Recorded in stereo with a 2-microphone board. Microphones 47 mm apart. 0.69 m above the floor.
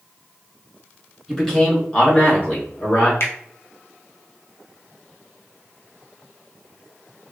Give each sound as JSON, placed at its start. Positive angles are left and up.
{"t": 1.3, "sound": "a man speaking", "side_deg": 10, "distance_m": 1.5}
{"t": 3.2, "sound": "a finger snap", "side_deg": 60, "distance_m": 0.7}